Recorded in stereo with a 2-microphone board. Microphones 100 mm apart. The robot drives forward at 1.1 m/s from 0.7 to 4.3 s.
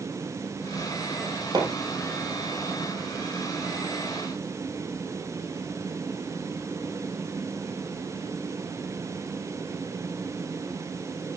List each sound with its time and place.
1.5 s hammering: 40° right (ahead or behind), 5 m